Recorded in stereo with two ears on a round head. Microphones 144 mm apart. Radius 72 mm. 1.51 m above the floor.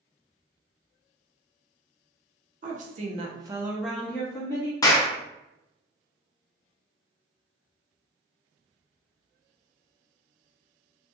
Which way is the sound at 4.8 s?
20° left (ahead or behind).